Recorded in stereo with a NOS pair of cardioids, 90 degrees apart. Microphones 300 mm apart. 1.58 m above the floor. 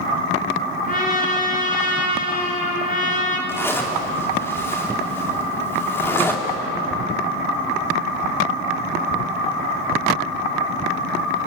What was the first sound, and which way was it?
A trumpet, 30° left.